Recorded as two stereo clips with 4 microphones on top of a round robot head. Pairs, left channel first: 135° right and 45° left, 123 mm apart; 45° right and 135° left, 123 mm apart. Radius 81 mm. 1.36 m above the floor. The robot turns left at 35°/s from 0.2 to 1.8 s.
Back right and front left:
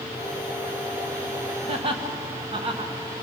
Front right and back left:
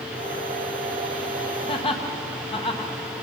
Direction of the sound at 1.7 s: 5° left.